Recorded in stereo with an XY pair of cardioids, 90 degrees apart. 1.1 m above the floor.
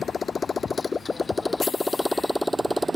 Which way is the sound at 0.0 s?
55° left.